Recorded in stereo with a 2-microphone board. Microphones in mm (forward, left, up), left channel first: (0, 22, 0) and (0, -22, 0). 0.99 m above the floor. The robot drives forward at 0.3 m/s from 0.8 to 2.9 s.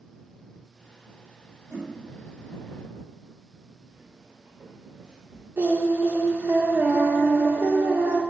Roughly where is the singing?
Right.